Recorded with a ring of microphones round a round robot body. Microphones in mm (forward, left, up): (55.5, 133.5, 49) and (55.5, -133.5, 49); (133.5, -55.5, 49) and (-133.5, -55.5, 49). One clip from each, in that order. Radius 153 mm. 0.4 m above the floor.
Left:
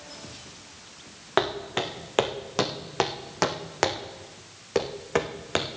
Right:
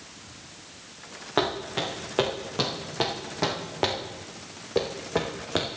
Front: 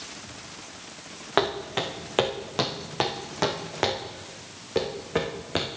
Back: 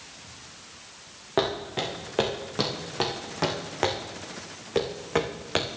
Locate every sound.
1.4 s footsteps: 50° left, 2 m; by 5.7 s 120° left, 1.8 m